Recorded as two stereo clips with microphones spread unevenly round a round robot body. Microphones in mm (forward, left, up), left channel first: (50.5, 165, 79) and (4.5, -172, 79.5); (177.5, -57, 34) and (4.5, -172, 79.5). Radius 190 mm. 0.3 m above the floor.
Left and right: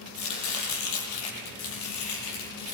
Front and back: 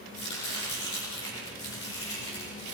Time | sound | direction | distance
0.1 | chopping | 85° left | 7.5 m